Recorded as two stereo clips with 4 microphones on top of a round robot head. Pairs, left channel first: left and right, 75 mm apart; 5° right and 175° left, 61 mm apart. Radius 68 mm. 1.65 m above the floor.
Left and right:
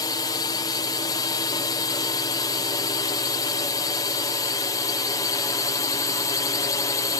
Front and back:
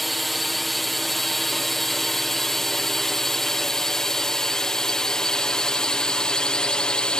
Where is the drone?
85° left; by 7.2 s 70° left.